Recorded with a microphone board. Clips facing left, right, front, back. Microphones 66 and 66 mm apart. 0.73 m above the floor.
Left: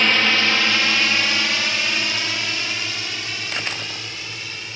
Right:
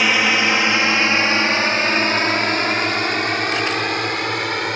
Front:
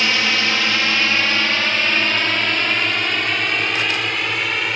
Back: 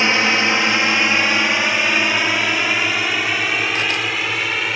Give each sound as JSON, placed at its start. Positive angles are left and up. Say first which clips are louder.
{"t": 0.0, "sound": "a drone", "louder": "right 2 dB, back 3 dB", "azimuth_deg": -155}